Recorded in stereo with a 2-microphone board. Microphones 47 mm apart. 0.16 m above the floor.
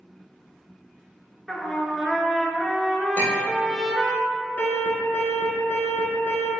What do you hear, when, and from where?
1.5 s a trumpet: 10° left (ahead or behind), 0.5 m
3.2 s a clink: 45° left (ahead or behind), 1.4 m
4.6 s an alarm: 50° left (ahead or behind), 1.2 m